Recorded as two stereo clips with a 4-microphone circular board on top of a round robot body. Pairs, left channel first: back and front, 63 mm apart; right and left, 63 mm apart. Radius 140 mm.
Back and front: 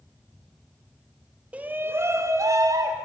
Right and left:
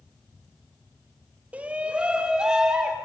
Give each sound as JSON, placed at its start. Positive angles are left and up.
{"t": 1.5, "sound": "a shout", "azimuth_deg": 45, "distance_m": 0.8}